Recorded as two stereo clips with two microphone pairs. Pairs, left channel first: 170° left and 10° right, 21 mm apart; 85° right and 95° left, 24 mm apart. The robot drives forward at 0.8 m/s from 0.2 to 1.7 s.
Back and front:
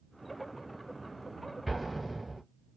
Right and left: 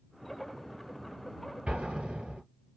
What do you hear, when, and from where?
1.7 s an explosion: 80° left, 2 m